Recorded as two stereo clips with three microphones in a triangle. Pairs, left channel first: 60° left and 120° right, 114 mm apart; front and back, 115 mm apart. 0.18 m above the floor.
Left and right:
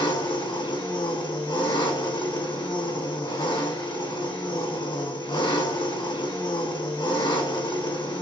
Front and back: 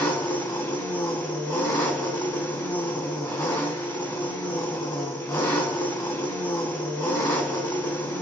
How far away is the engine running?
About 1.1 m.